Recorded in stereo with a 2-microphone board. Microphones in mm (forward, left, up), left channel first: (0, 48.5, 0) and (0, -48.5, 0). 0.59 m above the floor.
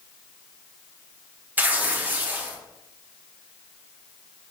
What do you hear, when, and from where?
1.6 s tearing paper: 15° right (ahead or behind), 0.7 m